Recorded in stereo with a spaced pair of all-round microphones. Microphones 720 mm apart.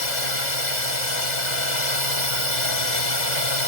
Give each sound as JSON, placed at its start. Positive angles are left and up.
{"t": 0.0, "sound": "a drone", "side_deg": 75}